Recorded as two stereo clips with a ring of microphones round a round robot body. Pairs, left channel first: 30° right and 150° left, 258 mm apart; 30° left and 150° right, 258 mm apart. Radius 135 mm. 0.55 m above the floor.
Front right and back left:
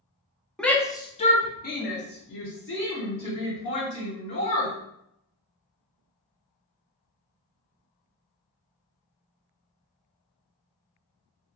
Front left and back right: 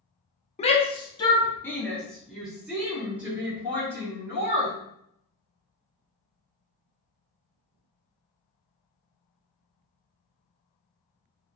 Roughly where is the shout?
Ahead left.